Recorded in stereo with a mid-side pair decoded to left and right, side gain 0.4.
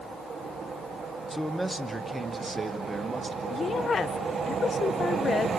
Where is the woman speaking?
45° left, 0.6 m.